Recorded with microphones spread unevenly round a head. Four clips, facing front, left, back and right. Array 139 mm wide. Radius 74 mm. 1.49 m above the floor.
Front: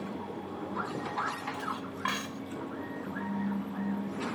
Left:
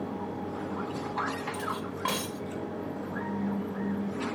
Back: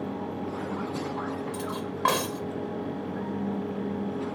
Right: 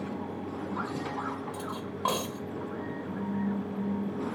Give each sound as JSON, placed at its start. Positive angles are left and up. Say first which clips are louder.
{"t": 1.5, "sound": "cutlery clinking", "louder": "left 2 dB, back 4 dB", "azimuth_deg": -155}